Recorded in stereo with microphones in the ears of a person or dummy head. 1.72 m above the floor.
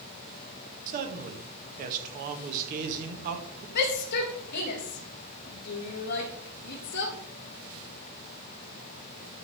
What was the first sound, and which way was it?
A man speaking, 45° right (ahead or behind).